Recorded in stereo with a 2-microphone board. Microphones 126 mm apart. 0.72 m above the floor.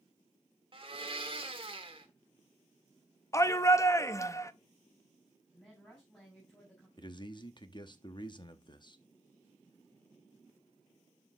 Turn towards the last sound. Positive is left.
turn(degrees=35)  # may be behind; listen again after turning